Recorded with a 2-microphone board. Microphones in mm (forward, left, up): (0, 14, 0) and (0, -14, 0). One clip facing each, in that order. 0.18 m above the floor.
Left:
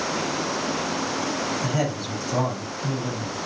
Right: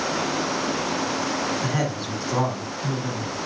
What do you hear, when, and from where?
1.6 s a man speaking: 30° right (ahead or behind), 1.6 m